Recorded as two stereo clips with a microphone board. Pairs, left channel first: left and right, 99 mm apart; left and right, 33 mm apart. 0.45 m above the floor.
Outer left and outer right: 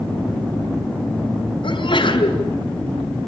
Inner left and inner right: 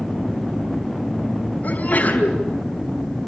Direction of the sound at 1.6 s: 60° left (ahead or behind).